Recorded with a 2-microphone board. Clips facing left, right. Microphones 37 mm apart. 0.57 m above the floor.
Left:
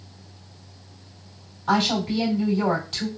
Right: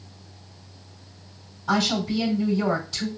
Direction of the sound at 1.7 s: 60° left (ahead or behind).